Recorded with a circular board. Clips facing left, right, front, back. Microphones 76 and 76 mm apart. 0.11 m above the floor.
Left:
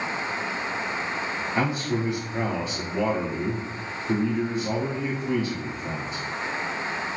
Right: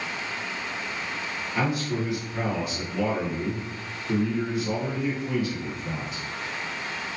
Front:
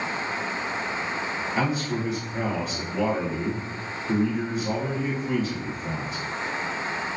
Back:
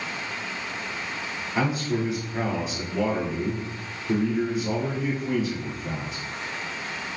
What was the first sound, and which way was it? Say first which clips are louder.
A man speaking: even, back 2 dB; 110° left.